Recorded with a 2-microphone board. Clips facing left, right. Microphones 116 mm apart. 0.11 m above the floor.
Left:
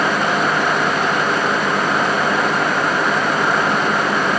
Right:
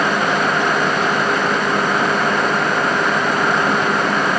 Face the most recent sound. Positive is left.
No sound to turn to.